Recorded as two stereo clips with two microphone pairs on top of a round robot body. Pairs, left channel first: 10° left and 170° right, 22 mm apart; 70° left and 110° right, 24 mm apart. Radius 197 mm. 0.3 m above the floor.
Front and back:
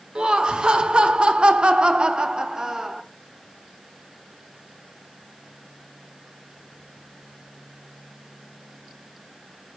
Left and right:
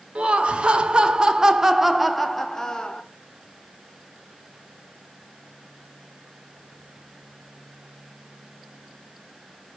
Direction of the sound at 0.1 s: 130° right.